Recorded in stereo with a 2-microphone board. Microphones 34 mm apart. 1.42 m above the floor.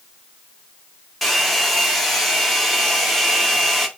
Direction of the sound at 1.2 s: 5° left (ahead or behind).